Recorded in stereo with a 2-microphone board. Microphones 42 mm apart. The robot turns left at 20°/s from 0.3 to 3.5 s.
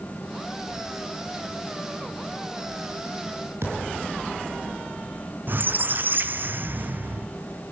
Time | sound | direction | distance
3.6 | a thud | 85° right | 5 m
5.5 | a squeak | 55° right (ahead or behind) | 0.7 m